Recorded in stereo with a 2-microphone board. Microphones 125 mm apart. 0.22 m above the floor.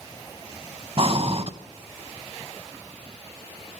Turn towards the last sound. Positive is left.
turn(degrees=-50)  # may be behind; listen again after turning